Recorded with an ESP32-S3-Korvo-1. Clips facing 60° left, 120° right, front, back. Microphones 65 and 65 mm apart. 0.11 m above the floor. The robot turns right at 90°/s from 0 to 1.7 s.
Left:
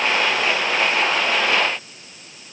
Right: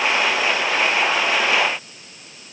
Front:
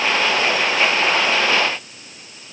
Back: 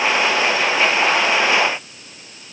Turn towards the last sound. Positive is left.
No sound to turn to.